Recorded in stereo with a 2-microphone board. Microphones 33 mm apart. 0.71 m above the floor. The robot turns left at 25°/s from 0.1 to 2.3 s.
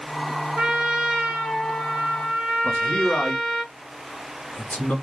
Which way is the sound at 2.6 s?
45° left (ahead or behind).